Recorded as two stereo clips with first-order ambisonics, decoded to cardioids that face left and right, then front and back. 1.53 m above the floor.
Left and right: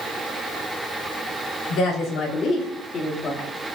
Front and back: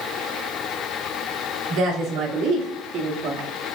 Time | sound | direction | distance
1.7 | a woman speaking | 140° left | 3.5 m